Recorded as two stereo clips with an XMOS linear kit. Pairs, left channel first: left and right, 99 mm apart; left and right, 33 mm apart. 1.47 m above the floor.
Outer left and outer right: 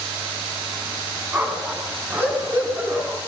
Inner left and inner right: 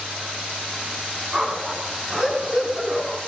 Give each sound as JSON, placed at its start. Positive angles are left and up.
{"t": 1.3, "sound": "a dog barking", "side_deg": -20, "distance_m": 5.0}